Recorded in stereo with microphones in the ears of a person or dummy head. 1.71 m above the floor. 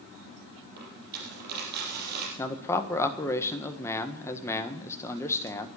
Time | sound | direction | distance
0.8 | a dropped coin | 55° right (ahead or behind) | 4.5 m
2.4 | a man speaking | 15° left (ahead or behind) | 1.5 m